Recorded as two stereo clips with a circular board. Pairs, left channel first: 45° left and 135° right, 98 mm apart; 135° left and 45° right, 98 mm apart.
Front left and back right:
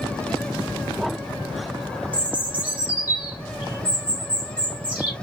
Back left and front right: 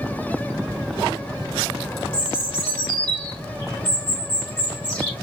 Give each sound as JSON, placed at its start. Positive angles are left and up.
{"t": 2.1, "sound": "a bird", "azimuth_deg": -65, "distance_m": 2.0}